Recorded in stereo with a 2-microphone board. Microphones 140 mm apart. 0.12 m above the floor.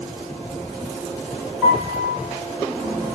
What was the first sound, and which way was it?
A piano, 15° right (ahead or behind).